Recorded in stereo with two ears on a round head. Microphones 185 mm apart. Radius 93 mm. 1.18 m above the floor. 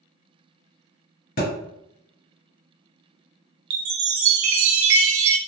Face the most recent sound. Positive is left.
turn(degrees=-65)  # may be behind; listen again after turning